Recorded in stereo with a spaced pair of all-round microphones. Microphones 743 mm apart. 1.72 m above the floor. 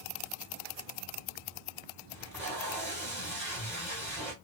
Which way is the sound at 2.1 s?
5° left (ahead or behind).